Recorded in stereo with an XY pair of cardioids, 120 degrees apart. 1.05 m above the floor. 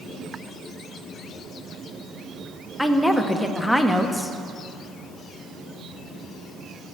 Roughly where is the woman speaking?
Ahead.